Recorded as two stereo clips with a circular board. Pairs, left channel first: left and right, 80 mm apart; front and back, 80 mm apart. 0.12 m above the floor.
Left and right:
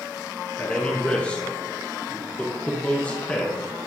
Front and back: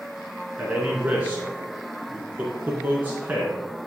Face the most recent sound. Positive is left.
turn(degrees=145)